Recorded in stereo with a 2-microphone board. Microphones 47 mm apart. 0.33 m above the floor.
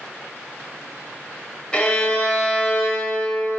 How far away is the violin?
About 1.3 m.